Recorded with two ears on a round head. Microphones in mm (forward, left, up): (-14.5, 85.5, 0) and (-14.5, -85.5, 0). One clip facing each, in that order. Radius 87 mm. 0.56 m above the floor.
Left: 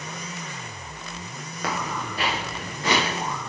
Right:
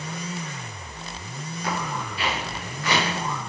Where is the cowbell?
I don't hear a cowbell.